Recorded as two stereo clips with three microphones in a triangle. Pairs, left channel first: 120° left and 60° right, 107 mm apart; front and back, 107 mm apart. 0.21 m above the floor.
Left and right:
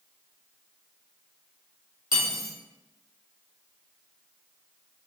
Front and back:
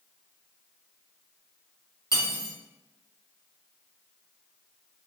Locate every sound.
2.1 s cutlery clinking: 45° right, 1.1 m